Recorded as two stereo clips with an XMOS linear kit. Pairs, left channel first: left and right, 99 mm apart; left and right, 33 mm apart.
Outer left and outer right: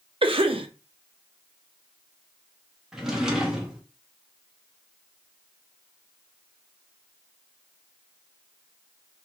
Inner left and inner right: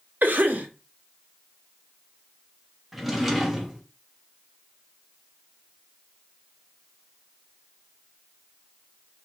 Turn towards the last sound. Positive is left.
turn(degrees=-5)  # may be behind; listen again after turning